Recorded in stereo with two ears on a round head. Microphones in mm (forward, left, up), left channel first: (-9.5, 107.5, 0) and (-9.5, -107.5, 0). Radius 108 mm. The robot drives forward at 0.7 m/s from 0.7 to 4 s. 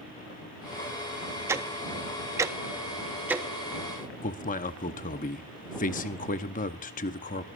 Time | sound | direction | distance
1.5 | ticking | 10° right (ahead or behind) | 0.8 m
4.2 | a man speaking | 35° left (ahead or behind) | 0.9 m